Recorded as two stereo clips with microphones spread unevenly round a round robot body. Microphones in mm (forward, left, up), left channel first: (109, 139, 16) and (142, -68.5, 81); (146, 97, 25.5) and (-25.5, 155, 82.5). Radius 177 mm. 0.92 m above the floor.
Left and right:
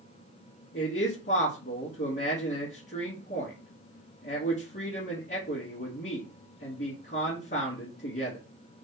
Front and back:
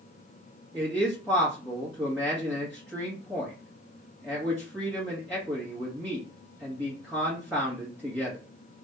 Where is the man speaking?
75° left, 1.9 m.